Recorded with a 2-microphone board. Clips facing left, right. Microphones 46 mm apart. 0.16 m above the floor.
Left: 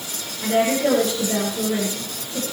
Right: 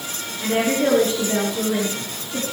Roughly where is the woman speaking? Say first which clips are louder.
Left 1 dB; right.